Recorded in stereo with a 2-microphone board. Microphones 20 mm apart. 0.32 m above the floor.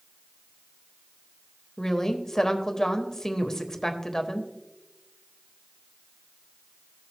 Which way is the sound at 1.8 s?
30° left (ahead or behind).